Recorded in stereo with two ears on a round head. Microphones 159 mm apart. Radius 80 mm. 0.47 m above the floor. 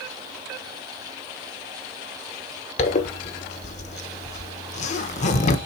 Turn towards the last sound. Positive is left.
turn(degrees=40)  # may be behind; listen again after turning